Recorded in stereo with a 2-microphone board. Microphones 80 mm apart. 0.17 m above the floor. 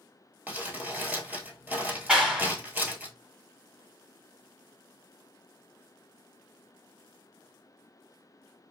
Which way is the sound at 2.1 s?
10° right (ahead or behind).